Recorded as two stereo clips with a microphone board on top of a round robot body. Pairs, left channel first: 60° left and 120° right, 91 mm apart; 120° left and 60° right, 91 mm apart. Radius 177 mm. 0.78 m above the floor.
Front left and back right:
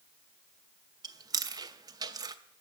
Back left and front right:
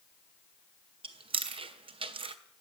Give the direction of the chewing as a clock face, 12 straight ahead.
2 o'clock.